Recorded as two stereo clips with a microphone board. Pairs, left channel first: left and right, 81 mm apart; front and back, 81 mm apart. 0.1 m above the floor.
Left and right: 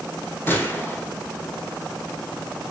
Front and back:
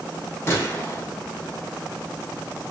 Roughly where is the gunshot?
Ahead left.